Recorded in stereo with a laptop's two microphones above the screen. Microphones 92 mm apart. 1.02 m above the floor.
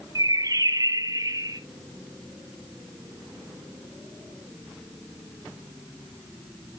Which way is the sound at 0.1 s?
40° right (ahead or behind).